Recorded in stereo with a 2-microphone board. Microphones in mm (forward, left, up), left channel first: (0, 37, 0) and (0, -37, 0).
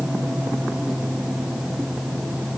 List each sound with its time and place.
Only background noise.